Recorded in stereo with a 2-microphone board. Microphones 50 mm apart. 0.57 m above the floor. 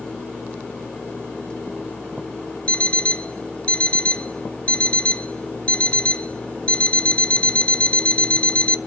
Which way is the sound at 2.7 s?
25° left (ahead or behind).